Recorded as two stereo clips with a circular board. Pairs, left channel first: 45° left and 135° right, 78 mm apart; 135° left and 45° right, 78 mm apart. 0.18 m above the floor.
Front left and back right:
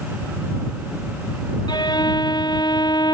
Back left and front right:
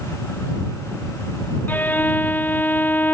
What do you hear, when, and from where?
1.7 s a violin: 70° left